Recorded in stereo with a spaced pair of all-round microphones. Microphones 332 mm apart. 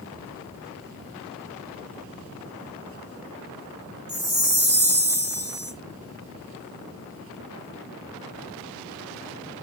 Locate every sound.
4.1 s a chime: 10° right (ahead or behind), 5.5 m